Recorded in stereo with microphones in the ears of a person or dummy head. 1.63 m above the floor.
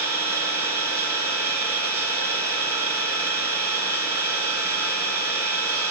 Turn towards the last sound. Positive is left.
turn(degrees=-20)  # may be behind; listen again after turning